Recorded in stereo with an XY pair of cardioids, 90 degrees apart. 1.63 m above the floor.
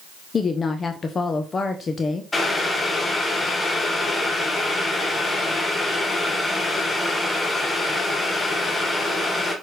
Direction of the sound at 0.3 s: 45° left.